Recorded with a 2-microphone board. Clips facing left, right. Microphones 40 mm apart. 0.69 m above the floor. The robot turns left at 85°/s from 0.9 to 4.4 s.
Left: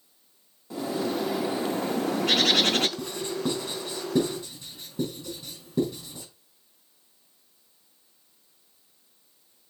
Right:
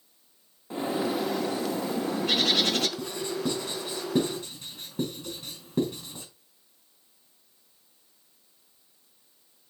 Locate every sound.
0.7 s a bird: 150° right, 0.6 m; by 2.9 s 40° left, 0.6 m
3.0 s writing: 60° left (ahead or behind), 4 m; by 6.2 s 60° right (ahead or behind), 4 m